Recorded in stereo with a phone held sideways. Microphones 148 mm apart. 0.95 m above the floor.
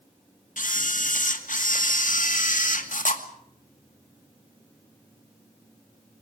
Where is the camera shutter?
65° left (ahead or behind), 2 m.